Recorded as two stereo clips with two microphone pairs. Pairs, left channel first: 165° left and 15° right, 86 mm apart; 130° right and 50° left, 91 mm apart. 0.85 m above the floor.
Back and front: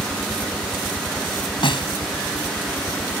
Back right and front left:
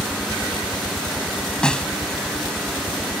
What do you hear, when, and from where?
0.0 s a helicopter: 115° left; by 3.2 s 120° left
1.6 s a snare drum: 150° left